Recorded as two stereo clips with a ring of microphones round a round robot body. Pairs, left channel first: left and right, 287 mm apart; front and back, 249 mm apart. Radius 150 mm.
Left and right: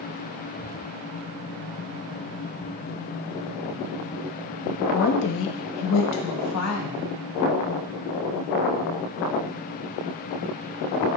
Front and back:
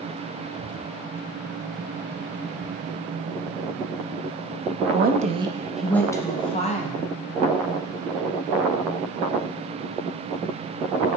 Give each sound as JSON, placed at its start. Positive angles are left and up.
{"t": 4.9, "sound": "a woman speaking", "azimuth_deg": 145, "distance_m": 0.7}